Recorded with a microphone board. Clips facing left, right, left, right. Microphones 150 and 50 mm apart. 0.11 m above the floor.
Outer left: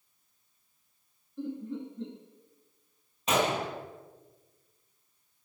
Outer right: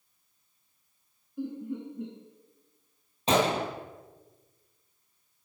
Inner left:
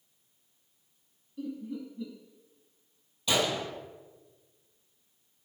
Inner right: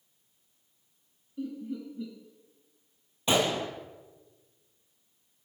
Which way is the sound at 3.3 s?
30° right (ahead or behind).